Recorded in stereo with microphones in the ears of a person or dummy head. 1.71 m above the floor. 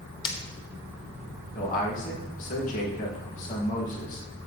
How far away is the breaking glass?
About 0.9 m.